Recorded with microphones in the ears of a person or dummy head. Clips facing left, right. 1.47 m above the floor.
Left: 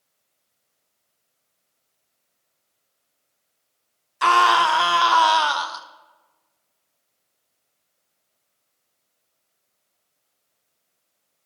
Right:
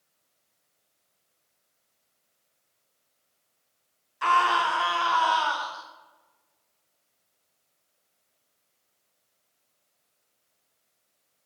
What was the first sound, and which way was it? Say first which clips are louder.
A scream: left 6 dB; 75° left (ahead or behind).